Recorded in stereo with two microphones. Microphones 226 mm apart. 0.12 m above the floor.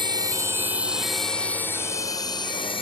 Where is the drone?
20° right (ahead or behind); by 2.8 s 25° left (ahead or behind).